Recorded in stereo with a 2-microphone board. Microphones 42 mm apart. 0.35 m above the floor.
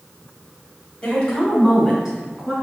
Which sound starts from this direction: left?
A woman speaking, at 1.0 s.